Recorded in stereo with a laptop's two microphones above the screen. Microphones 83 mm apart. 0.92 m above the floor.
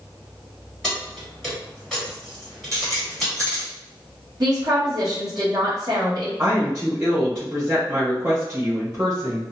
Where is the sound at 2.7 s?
35° right (ahead or behind), 0.7 m.